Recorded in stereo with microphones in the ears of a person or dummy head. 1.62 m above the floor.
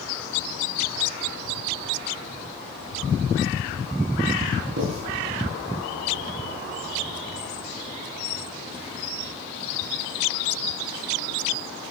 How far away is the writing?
About 7 m.